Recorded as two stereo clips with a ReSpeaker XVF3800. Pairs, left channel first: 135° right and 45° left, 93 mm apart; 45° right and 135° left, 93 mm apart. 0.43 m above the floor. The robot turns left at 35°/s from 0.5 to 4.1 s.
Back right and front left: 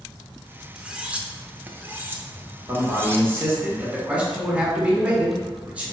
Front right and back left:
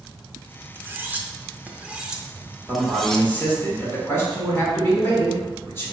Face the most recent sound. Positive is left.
turn(degrees=-20)